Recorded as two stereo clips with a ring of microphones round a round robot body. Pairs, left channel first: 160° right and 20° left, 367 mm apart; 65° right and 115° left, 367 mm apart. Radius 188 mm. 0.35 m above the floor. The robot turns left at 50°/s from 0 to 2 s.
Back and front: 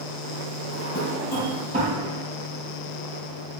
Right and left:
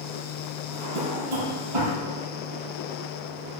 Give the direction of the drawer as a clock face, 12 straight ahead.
7 o'clock.